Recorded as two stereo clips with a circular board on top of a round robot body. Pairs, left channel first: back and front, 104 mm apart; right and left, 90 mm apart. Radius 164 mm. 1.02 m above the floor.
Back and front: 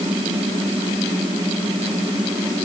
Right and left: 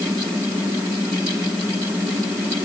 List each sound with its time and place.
Only background noise.